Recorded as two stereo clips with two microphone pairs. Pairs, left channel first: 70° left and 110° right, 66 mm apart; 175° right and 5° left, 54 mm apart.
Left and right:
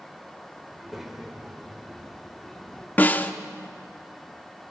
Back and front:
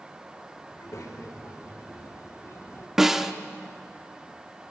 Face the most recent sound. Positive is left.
turn(degrees=80)